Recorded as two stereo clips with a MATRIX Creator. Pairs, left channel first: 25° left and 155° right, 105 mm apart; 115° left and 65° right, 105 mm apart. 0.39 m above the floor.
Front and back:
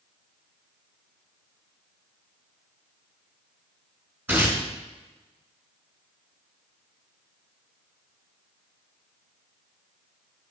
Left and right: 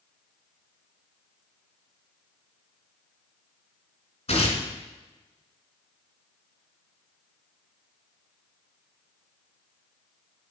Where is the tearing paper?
130° left, 1.4 m.